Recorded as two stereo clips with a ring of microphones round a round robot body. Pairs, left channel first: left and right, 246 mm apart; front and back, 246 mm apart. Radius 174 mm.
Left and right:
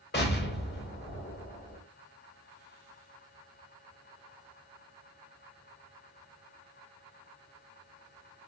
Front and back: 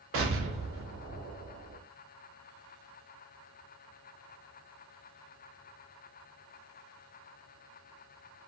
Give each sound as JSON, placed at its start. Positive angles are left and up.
{"t": 0.1, "sound": "an explosion", "azimuth_deg": 140, "distance_m": 0.8}